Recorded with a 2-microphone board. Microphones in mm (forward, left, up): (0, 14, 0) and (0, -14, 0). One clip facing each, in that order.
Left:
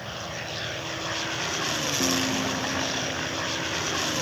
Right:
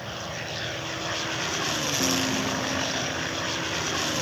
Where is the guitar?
5° left (ahead or behind).